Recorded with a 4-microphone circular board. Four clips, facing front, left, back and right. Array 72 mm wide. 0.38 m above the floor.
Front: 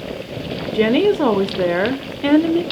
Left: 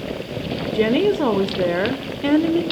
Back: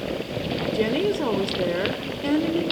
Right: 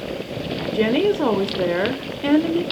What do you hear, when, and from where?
0.7 s a woman speaking: straight ahead, 1.0 m